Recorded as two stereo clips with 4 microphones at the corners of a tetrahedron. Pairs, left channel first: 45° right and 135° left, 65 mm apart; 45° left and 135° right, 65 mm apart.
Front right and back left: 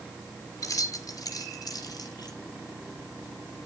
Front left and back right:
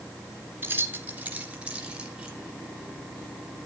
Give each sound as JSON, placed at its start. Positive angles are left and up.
{"t": 0.6, "sound": "keys jangling", "azimuth_deg": -75, "distance_m": 2.5}